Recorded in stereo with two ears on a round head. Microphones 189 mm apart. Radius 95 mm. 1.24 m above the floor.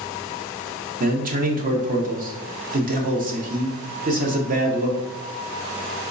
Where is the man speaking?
40° right (ahead or behind), 0.8 m.